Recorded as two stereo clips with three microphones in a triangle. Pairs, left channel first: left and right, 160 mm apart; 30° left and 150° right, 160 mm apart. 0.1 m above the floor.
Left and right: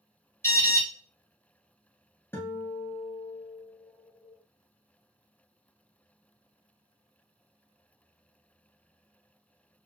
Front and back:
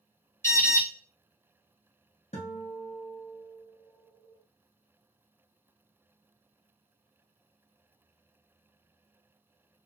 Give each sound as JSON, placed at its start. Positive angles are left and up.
{"t": 0.4, "sound": "an alarm", "azimuth_deg": 60, "distance_m": 1.3}
{"t": 2.3, "sound": "a guitar", "azimuth_deg": 20, "distance_m": 1.2}